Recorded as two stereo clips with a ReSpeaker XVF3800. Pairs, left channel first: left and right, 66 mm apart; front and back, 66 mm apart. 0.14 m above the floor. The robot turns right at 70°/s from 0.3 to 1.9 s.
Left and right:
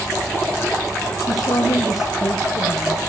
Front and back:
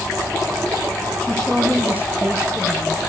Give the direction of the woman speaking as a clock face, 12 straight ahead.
10 o'clock.